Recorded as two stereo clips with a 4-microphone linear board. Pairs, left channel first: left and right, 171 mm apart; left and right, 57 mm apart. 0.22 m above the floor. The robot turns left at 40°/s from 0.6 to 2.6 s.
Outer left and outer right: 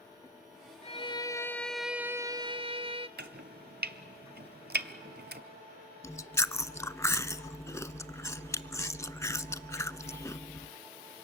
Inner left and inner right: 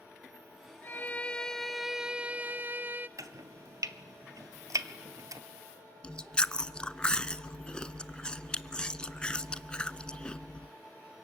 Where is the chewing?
15° left (ahead or behind), 0.5 m.